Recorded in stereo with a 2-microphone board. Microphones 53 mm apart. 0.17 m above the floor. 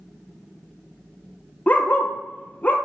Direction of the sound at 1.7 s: 30° left (ahead or behind).